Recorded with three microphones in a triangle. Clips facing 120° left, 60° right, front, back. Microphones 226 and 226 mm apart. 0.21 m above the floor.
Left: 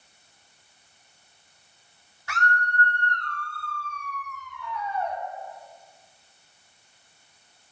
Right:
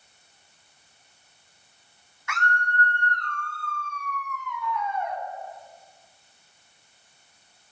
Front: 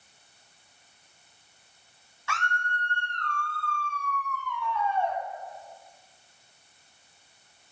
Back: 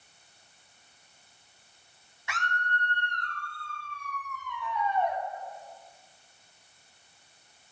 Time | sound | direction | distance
2.3 | a scream | 120° left | 1.8 m